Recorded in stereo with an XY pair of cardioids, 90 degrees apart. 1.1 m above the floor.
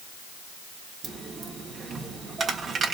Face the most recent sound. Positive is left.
turn(degrees=-55)